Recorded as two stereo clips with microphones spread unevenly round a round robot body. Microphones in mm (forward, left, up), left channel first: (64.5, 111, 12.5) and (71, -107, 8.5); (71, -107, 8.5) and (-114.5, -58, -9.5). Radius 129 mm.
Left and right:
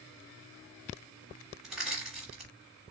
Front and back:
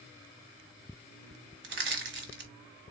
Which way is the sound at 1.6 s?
175° right.